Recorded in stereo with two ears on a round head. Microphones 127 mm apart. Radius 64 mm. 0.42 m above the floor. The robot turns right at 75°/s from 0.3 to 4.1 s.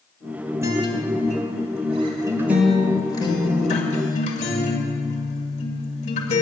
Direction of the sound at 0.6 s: 155° right.